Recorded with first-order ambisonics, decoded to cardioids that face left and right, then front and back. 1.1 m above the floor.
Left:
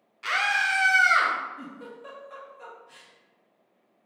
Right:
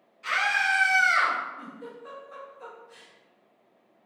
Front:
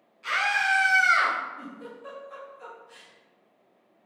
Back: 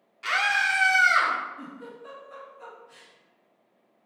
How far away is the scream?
About 0.8 m.